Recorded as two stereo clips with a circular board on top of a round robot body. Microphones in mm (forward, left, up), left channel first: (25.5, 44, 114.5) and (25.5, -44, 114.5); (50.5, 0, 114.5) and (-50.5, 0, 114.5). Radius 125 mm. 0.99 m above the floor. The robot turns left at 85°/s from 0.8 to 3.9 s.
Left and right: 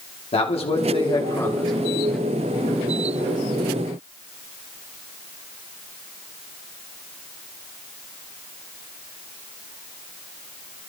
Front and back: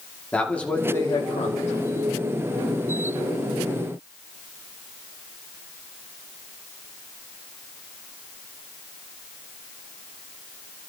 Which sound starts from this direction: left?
A man speaking, at 0.3 s.